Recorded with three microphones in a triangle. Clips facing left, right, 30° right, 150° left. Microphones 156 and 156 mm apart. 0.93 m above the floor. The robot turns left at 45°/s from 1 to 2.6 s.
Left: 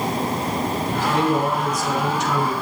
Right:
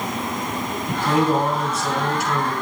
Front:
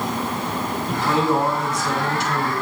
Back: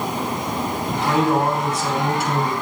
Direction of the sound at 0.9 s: 120° right.